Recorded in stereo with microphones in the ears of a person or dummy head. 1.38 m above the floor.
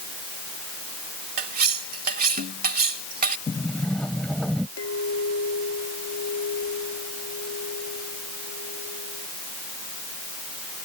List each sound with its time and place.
1.4 s cutlery clinking: 45° right (ahead or behind)
3.5 s a sliding door: 10° left (ahead or behind)
4.8 s a clink: 85° left